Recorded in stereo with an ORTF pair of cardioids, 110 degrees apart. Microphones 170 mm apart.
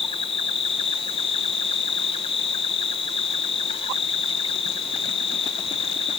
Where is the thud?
I don't hear a thud.